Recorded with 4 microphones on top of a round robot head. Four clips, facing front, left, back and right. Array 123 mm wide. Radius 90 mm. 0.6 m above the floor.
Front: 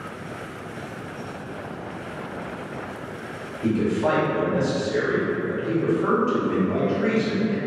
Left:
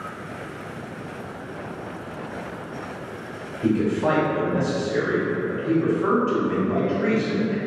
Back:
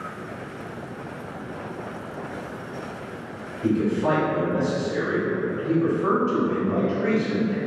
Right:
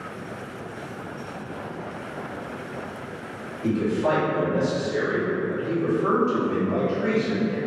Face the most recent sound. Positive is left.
turn(degrees=50)